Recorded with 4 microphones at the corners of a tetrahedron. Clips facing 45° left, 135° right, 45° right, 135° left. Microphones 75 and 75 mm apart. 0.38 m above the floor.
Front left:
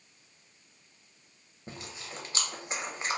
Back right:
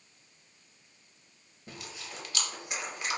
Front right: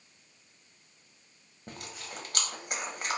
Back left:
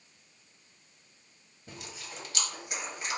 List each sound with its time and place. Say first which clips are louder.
1.7 s chewing: front left 1 dB, front right 2 dB; 10° right, 0.7 m